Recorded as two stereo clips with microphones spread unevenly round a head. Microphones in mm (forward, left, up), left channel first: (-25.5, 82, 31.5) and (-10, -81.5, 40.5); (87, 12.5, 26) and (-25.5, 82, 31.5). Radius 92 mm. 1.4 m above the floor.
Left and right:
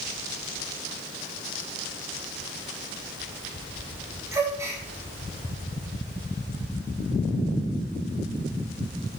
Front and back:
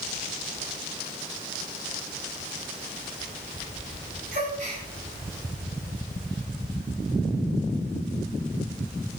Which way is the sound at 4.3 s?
160° right.